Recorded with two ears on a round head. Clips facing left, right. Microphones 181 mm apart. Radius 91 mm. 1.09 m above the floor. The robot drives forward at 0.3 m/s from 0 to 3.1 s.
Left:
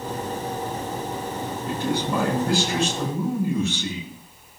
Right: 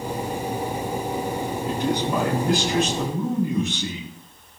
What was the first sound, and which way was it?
A man speaking, 20° right (ahead or behind).